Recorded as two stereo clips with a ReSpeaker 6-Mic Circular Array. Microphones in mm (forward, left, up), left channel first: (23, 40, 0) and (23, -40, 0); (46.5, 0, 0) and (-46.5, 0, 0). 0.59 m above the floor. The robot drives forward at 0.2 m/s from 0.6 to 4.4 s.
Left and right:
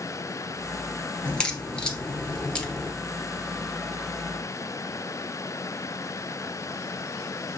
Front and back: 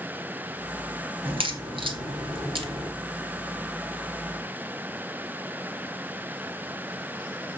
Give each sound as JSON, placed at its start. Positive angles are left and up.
{"t": 1.2, "sound": "a crack", "azimuth_deg": 170, "distance_m": 1.4}